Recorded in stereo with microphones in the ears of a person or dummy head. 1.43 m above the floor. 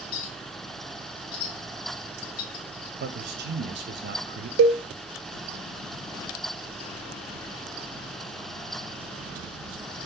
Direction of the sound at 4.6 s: 80° right.